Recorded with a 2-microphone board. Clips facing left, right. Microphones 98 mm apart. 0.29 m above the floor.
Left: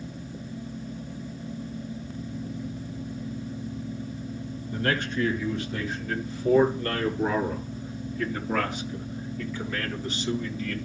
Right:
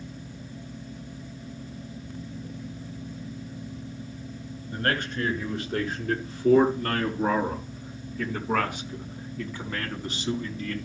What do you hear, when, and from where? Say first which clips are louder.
4.7 s a man speaking: left 1 dB; 60° right (ahead or behind), 4.5 m; by 10.8 s 45° right (ahead or behind), 3 m